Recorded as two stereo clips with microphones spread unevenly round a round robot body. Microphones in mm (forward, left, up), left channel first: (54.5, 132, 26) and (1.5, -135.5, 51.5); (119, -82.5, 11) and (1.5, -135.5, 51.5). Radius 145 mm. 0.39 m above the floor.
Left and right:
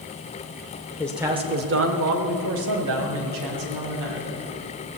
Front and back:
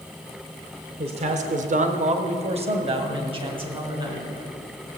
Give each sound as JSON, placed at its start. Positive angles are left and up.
{"t": 1.0, "sound": "a man speaking", "azimuth_deg": 150, "distance_m": 1.0}